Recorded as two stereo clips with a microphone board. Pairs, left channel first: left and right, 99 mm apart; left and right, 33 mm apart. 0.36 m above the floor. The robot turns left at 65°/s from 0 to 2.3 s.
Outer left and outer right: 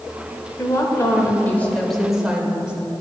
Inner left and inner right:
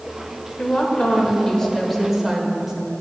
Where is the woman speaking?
95° left, 0.9 m; by 2.7 s 15° right, 0.9 m.